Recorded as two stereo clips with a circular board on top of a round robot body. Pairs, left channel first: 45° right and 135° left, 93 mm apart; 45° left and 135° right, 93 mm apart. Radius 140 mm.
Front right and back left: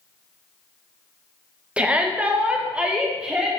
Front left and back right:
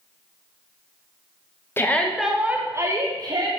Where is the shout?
70° left, 1.0 m; by 3.5 s 145° right, 1.5 m.